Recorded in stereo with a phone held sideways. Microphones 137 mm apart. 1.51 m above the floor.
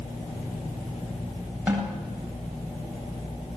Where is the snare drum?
15° right (ahead or behind), 10 m.